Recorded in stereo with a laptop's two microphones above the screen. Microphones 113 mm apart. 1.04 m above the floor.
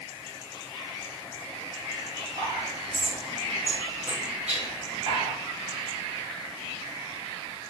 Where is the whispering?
70° right (ahead or behind), 1.3 m.